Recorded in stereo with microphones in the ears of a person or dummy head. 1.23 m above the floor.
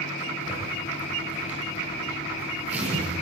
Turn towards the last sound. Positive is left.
turn(degrees=-10)  # may be behind; listen again after turning